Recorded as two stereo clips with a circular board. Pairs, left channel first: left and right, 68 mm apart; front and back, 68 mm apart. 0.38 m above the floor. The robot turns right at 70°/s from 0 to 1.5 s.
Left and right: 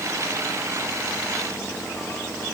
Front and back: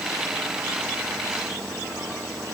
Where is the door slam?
I don't hear a door slam.